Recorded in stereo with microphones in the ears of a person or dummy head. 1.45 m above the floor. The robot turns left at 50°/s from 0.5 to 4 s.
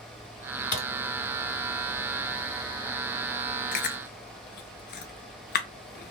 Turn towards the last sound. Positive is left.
turn(degrees=45)  # may be behind; listen again after turning